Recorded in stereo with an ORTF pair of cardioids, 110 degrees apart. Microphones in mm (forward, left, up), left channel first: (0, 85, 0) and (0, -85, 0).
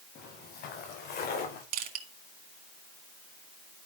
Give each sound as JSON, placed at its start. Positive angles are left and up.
{"t": 0.1, "sound": "footsteps", "azimuth_deg": 65, "distance_m": 6.0}
{"t": 1.7, "sound": "crushing", "azimuth_deg": -60, "distance_m": 2.5}